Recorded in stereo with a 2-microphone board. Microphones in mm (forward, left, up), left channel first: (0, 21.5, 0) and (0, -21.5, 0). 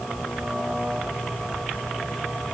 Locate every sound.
Only background noise.